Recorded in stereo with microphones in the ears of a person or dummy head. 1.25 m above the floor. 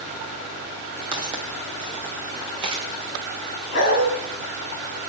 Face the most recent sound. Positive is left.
turn(degrees=65)  # may be behind; listen again after turning